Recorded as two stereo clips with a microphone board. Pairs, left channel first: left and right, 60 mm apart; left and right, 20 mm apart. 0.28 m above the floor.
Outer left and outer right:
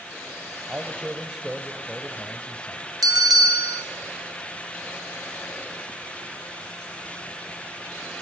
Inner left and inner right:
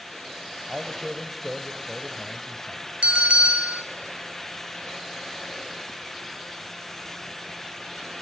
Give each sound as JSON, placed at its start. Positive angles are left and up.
{"t": 0.7, "sound": "a man speaking", "side_deg": -20, "distance_m": 1.6}
{"t": 3.0, "sound": "a bell", "side_deg": -80, "distance_m": 2.5}